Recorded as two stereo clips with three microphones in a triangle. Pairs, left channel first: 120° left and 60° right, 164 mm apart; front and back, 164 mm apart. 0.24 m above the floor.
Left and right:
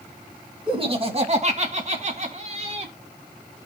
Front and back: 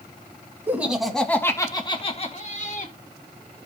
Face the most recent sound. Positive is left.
turn(degrees=-15)